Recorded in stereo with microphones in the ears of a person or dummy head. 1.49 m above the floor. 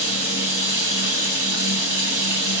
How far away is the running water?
About 4.5 m.